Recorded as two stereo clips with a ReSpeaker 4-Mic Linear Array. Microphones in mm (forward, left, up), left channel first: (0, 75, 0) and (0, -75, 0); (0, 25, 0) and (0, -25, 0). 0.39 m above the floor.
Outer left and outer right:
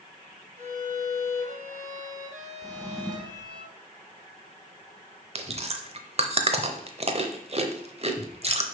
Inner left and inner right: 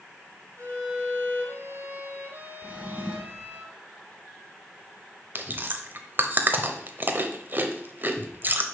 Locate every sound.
0.6 s a violin: 55° right (ahead or behind), 2 m
2.6 s a drawer: 25° right (ahead or behind), 1.2 m
5.3 s chewing: 45° right (ahead or behind), 0.8 m